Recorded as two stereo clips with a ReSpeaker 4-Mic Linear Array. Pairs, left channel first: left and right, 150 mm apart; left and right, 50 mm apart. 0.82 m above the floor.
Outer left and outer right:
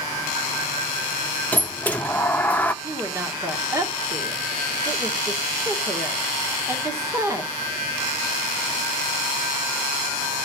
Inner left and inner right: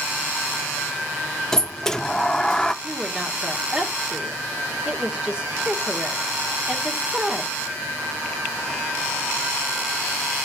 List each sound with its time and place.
1.5 s a sliding door: 10° left (ahead or behind), 0.6 m
2.8 s a woman speaking: 20° right (ahead or behind), 1.6 m